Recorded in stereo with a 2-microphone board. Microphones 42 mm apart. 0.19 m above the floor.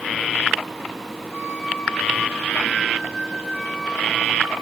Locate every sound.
1.3 s a flute: 30° left (ahead or behind), 4.5 m